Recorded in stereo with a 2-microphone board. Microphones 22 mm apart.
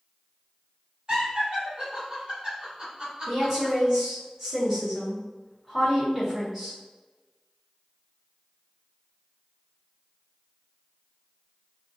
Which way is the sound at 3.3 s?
15° right (ahead or behind).